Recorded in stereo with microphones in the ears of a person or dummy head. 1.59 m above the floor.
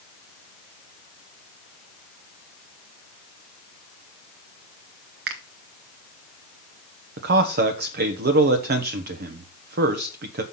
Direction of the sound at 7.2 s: 55° right (ahead or behind).